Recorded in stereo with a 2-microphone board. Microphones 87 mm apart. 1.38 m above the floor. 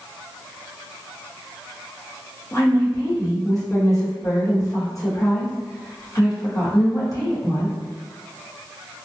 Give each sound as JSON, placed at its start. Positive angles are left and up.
{"t": 2.5, "sound": "a woman speaking", "side_deg": 40, "distance_m": 1.0}